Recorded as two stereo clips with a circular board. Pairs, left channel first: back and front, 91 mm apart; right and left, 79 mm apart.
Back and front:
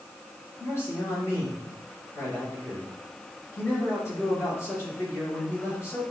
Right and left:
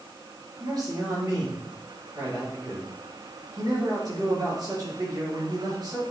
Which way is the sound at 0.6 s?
125° left.